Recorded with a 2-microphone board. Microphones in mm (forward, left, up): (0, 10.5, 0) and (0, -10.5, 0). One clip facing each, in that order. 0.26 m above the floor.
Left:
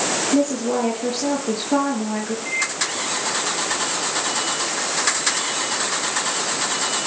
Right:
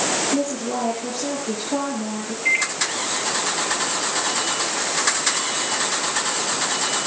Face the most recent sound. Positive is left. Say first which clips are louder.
# right 6 dB
turn(degrees=-45)  # may be behind; listen again after turning